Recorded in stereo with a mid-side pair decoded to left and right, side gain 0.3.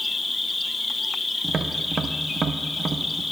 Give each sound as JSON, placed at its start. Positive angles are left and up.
{"t": 0.0, "sound": "an insect", "azimuth_deg": 40, "distance_m": 1.2}
{"t": 1.4, "sound": "tapping", "azimuth_deg": -60, "distance_m": 0.6}